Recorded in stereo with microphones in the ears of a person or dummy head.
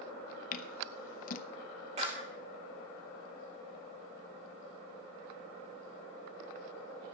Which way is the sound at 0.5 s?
45° left (ahead or behind).